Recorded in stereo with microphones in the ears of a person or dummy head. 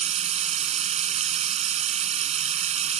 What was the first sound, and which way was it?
Running water, 35° right (ahead or behind).